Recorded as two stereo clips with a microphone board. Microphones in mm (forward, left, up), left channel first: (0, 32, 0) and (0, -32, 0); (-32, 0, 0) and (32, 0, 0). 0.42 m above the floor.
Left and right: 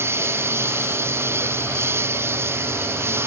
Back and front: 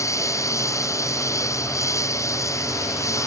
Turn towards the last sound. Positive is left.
turn(degrees=-140)